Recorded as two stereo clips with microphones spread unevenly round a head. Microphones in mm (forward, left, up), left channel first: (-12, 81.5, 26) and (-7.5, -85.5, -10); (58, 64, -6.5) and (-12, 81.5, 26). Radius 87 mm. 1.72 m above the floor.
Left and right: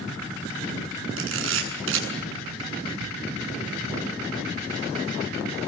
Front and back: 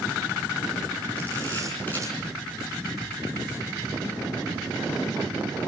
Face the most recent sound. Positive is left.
turn(degrees=-75)